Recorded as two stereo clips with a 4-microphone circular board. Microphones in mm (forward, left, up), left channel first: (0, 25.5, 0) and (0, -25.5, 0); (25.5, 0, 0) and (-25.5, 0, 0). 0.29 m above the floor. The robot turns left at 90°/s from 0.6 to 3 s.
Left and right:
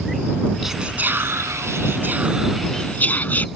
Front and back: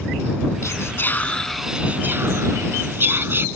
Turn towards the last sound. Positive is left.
turn(degrees=140)